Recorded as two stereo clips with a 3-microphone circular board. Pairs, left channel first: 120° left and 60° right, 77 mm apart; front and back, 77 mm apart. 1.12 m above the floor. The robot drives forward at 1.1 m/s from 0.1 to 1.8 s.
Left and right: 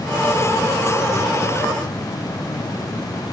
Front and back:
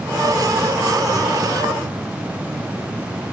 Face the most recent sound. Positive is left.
No sound to turn to.